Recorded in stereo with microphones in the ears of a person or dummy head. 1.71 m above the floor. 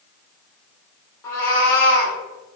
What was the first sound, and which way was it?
A cat meowing, 15° left (ahead or behind).